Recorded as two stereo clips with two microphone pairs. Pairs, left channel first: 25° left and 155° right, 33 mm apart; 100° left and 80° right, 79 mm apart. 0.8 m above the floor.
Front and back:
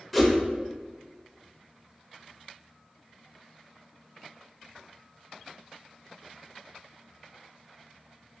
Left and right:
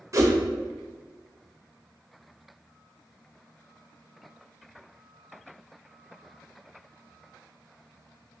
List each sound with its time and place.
0.1 s a whoosh: 75° right, 0.7 m